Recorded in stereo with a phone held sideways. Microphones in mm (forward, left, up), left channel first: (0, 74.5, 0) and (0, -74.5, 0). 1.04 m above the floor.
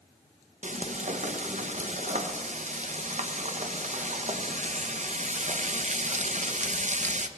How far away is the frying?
About 0.7 m.